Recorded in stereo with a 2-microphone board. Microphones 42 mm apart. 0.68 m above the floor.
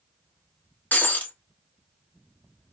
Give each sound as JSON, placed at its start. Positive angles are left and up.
{"t": 0.9, "sound": "breaking glass", "side_deg": 45, "distance_m": 0.9}